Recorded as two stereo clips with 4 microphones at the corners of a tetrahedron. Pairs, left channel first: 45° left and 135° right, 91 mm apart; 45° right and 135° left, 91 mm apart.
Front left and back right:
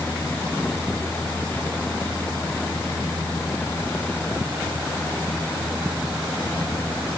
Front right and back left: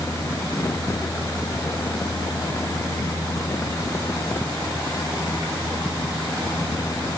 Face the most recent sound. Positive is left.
No sound to turn to.